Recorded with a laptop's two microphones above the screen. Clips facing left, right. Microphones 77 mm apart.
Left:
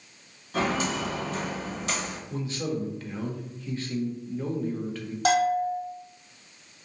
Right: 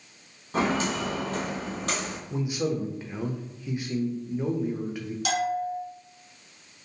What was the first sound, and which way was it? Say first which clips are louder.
Footsteps: right 1 dB; 35° right (ahead or behind).